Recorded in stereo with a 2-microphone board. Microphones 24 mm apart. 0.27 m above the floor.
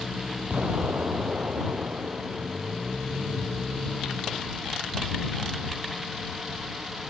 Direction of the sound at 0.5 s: 80° right.